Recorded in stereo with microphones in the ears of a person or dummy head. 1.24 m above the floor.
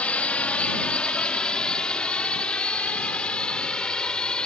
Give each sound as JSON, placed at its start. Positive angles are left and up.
{"t": 0.0, "sound": "a drone", "side_deg": 0}